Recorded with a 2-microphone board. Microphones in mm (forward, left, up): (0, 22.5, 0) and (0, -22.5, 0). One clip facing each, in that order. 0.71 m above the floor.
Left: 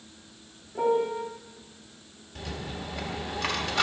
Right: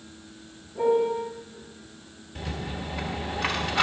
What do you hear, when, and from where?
0.8 s a piano: 40° left (ahead or behind), 2.0 m
2.4 s a rattle: 10° right (ahead or behind), 1.3 m